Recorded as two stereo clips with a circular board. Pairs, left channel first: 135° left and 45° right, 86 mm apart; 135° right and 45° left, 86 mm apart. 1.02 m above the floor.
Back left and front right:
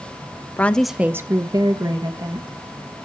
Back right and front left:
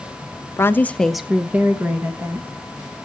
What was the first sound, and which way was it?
A woman speaking, 175° right.